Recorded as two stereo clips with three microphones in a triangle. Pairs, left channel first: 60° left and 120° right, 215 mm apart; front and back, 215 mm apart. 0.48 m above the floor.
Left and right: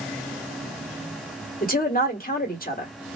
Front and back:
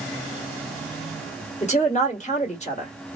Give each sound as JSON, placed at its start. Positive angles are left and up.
{"t": 1.6, "sound": "a woman speaking", "azimuth_deg": 40, "distance_m": 1.4}